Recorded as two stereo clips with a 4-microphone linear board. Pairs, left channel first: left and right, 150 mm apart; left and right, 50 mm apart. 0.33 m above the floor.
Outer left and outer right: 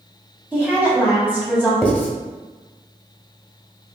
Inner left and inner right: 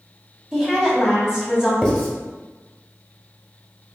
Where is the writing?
10° left (ahead or behind), 1.2 m.